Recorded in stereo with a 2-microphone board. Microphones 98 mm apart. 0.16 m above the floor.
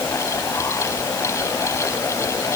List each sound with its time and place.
Only background noise.